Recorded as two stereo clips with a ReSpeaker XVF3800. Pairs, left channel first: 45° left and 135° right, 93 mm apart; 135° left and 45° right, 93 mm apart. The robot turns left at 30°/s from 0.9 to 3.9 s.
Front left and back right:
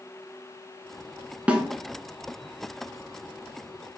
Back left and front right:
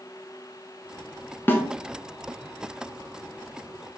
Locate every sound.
1.5 s a snare drum: 165° left, 0.7 m